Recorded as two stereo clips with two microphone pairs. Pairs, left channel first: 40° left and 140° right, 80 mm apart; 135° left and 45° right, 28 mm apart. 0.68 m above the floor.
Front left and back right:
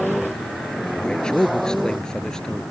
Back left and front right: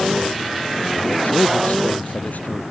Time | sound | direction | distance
1.0 | a man speaking | 120° left | ?